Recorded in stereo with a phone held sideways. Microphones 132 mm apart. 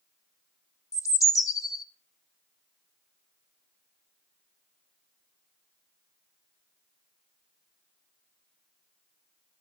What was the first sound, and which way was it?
A bird, 25° left (ahead or behind).